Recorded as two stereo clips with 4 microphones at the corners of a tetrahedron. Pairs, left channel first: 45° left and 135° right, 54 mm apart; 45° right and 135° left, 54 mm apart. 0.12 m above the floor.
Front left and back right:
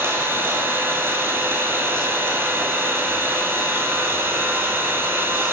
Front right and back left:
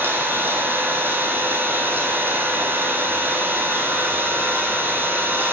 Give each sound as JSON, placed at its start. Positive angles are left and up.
{"t": 0.0, "sound": "an engine running", "azimuth_deg": -175, "distance_m": 1.8}